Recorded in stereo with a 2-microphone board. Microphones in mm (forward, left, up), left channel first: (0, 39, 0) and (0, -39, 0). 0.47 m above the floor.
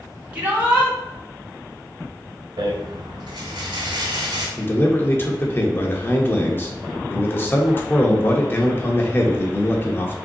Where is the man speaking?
30° left (ahead or behind), 0.8 m.